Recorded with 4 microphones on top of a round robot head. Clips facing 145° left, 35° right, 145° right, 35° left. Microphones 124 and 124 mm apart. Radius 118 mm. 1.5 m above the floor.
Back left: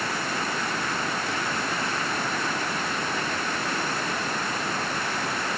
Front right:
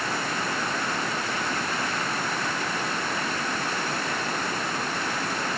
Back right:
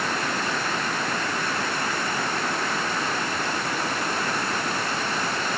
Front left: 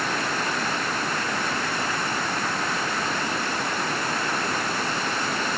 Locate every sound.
Only background noise.